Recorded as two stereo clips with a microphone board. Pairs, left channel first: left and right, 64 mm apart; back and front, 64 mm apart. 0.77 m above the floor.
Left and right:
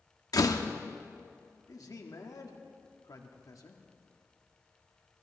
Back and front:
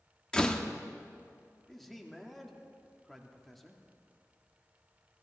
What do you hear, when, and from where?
0.3 s a door slam: 105° left, 0.9 m
1.7 s a man speaking: 95° left, 1.6 m